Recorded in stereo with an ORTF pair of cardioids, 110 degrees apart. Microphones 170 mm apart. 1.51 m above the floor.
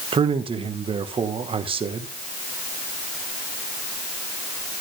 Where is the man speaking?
35° right, 1.6 m.